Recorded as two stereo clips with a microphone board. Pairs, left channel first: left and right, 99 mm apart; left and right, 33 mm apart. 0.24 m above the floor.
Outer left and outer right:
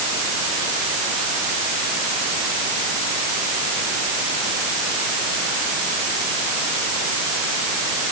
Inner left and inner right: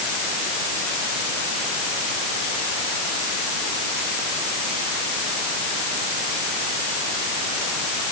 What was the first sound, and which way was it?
Only background noise.